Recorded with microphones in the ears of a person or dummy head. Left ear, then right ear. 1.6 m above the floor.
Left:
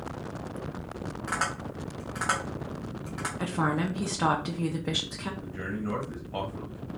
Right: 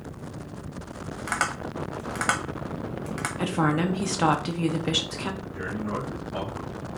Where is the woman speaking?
15° right (ahead or behind), 0.8 m.